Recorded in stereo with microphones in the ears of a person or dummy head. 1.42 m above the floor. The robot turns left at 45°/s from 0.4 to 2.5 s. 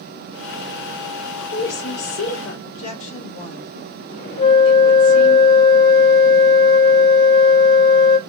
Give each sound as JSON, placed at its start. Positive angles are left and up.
{"t": 1.2, "sound": "a woman speaking", "azimuth_deg": 125, "distance_m": 2.0}
{"t": 2.6, "sound": "a woman speaking", "side_deg": 70, "distance_m": 2.0}
{"t": 4.4, "sound": "a flute", "side_deg": 55, "distance_m": 2.0}